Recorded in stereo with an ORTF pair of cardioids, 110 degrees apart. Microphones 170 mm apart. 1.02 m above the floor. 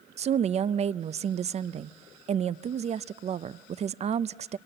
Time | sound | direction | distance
0.2 | a woman speaking | 40° right | 0.5 m